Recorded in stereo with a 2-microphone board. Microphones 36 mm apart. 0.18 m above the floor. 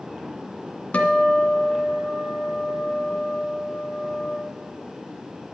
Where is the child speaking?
I don't hear a child speaking.